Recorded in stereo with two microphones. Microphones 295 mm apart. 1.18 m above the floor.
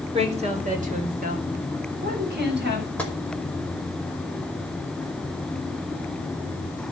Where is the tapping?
5° left (ahead or behind), 5 m.